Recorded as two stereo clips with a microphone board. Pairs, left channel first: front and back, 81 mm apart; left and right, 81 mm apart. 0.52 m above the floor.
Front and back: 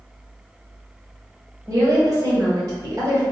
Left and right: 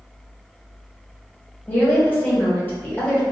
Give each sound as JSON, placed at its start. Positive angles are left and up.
{"t": 1.7, "sound": "a woman speaking", "azimuth_deg": 155, "distance_m": 1.4}